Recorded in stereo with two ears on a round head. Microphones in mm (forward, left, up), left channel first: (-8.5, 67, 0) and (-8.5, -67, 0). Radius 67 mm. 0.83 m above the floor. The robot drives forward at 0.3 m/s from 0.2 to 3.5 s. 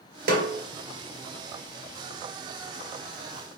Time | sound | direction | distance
0.3 | a snare drum | 65° right (ahead or behind) | 1.1 m